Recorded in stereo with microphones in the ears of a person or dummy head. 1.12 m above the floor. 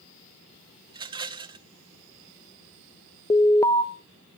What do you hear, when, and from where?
0.9 s a rattle: 20° right (ahead or behind), 0.8 m
3.3 s an alarm: 15° left (ahead or behind), 0.6 m